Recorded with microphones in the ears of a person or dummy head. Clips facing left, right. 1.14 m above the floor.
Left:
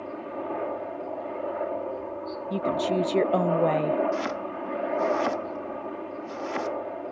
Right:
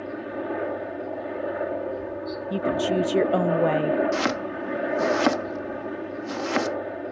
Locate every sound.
0.0 s a helicopter: 15° right (ahead or behind)
2.5 s a woman speaking: 5° right (ahead or behind)
4.1 s chopping: 70° right (ahead or behind)